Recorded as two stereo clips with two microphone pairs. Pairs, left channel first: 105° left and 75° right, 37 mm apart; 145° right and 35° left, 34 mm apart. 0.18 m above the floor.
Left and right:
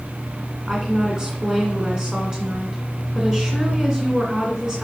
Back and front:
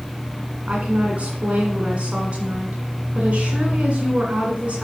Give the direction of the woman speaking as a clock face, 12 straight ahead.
12 o'clock.